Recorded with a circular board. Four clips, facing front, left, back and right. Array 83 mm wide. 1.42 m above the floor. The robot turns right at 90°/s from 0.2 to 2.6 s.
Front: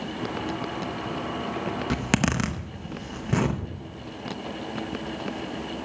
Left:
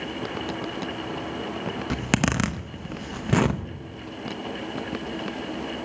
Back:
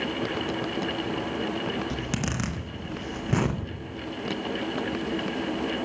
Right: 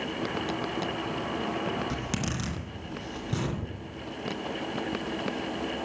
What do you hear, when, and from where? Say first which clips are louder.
1.9 s a zipper: left 8 dB, front 5 dB; 30° left, 0.7 m; by 3.6 s 95° left, 0.7 m